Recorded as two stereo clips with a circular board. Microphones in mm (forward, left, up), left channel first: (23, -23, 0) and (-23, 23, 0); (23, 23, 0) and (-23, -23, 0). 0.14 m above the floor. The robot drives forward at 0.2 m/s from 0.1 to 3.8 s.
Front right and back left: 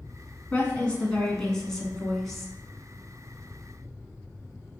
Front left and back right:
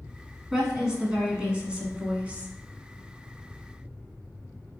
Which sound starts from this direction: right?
A woman speaking, at 0.5 s.